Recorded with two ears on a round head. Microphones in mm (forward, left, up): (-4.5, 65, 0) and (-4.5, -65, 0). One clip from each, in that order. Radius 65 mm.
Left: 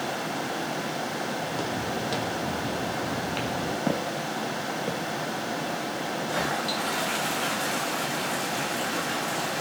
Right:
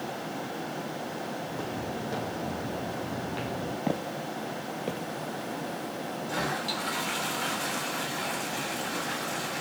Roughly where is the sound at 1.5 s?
Left.